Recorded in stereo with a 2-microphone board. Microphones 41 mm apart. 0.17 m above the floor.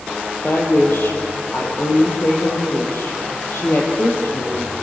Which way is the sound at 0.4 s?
65° left (ahead or behind).